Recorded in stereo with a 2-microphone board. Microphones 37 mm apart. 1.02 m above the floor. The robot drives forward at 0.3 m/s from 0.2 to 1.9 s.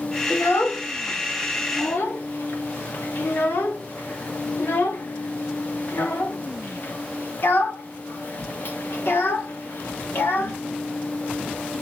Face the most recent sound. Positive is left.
turn(degrees=70)  # may be behind; listen again after turning